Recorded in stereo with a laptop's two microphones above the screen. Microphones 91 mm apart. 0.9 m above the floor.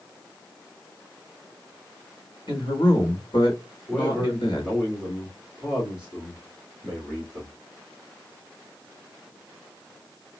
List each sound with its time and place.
2.5 s a man speaking: 75° left (ahead or behind), 3 m
3.9 s a man speaking: centre (ahead or behind), 2 m